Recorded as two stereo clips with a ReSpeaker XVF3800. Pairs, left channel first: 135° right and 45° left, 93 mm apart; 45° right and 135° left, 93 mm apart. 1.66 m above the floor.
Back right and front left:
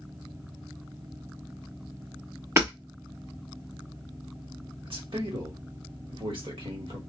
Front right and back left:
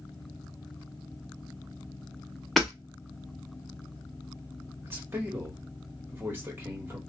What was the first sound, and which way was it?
Hammering, 45° left.